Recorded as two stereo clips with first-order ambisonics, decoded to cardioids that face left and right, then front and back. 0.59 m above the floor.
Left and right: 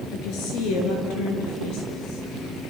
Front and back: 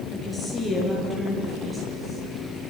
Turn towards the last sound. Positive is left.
turn(degrees=105)